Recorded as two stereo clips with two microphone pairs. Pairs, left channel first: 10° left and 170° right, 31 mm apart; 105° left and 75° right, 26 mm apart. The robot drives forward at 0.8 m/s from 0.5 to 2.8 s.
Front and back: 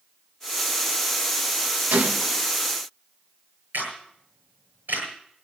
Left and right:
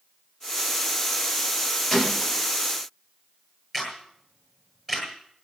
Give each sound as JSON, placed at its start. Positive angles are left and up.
{"t": 1.9, "sound": "a gunshot", "azimuth_deg": 175, "distance_m": 1.7}
{"t": 3.7, "sound": "a camera shutter", "azimuth_deg": -175, "distance_m": 9.0}